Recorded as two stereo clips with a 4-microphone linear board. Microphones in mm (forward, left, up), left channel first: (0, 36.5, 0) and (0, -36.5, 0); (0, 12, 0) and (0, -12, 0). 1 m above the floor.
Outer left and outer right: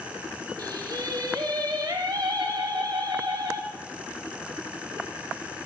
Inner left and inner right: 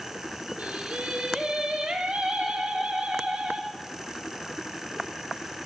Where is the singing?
70° right (ahead or behind), 1.6 m.